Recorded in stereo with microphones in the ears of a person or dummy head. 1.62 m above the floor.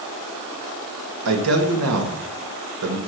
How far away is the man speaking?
About 2.5 m.